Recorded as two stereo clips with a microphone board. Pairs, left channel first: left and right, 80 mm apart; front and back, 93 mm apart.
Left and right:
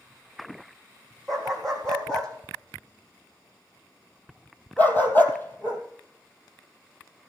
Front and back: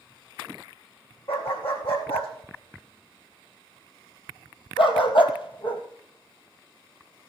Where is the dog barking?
5° left, 4 m; by 5.8 s 30° left, 2.0 m.